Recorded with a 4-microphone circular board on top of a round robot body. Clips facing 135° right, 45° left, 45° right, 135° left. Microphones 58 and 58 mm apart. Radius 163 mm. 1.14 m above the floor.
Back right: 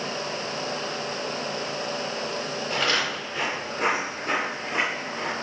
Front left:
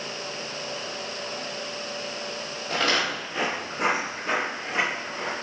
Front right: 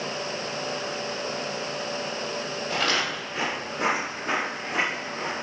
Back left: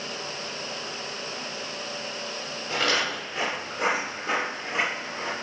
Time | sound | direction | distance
2.7 | footsteps | 75° left | 1.2 m